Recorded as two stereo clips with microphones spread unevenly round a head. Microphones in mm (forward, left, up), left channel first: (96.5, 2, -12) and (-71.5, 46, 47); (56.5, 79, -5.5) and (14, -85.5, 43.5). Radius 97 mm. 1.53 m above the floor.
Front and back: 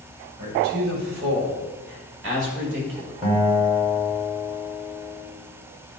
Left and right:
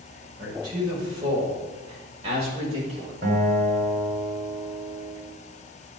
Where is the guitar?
145° right, 4.5 m.